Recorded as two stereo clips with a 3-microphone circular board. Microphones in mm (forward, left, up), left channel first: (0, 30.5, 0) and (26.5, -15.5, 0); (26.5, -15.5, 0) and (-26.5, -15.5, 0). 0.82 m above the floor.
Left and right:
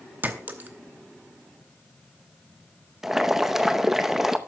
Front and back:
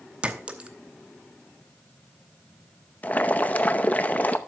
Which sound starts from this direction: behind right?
A clink, at 0.2 s.